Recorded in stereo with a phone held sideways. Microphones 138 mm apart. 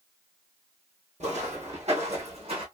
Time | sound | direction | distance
1.2 | footsteps | 55° right (ahead or behind) | 1.7 m